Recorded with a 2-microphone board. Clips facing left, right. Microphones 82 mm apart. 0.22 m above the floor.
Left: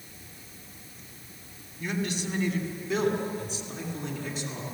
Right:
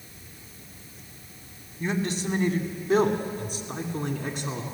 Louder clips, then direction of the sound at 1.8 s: Right 3 dB; 30° right (ahead or behind).